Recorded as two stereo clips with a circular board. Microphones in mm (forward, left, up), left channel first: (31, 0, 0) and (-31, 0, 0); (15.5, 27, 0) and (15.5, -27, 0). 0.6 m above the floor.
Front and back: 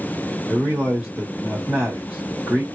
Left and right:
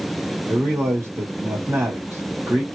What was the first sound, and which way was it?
A man speaking, 105° right.